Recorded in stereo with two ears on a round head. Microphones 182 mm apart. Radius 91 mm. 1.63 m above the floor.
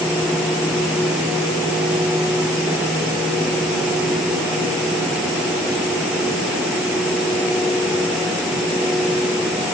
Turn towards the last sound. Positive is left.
No sound to turn to.